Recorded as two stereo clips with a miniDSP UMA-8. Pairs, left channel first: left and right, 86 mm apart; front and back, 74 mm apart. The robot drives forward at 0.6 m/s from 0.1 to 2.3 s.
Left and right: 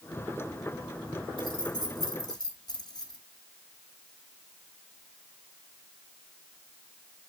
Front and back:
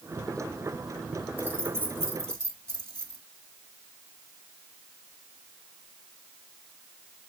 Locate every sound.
1.4 s keys jangling: 115° left, 2 m; by 3.2 s 130° left, 2.5 m